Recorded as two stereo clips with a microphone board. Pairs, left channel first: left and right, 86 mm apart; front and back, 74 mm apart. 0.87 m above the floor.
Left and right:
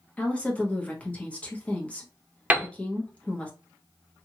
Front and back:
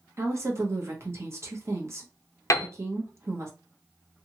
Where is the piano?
25° right, 0.5 m.